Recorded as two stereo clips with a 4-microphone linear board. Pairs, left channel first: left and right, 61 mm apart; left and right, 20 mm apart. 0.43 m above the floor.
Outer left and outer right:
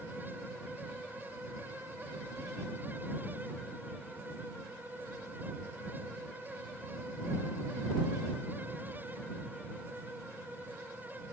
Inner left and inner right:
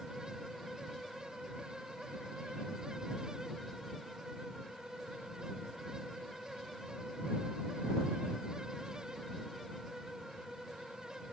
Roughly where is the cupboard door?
No cupboard door in this recording.